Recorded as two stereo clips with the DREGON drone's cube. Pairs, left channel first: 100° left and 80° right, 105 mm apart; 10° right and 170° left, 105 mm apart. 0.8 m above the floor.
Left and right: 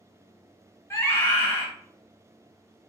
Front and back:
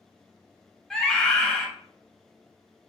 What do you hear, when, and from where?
0.9 s a scream: 65° left, 1.1 m